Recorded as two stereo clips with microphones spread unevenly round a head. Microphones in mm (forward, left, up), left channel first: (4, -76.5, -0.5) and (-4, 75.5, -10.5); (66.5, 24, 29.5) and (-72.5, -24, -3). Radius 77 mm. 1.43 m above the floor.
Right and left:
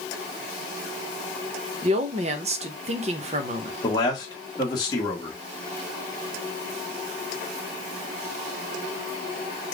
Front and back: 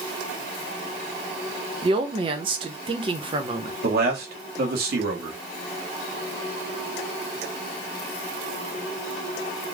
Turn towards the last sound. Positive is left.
turn(degrees=-150)